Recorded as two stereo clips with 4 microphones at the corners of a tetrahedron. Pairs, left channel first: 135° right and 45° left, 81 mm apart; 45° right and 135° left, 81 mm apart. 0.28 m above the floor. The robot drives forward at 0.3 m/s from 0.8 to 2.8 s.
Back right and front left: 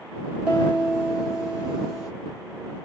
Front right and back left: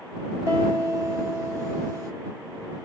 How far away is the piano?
About 1.6 m.